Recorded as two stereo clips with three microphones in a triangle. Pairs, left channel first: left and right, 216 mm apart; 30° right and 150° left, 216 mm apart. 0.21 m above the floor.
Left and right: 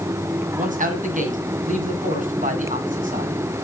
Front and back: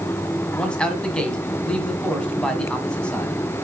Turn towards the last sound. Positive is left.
turn(degrees=-115)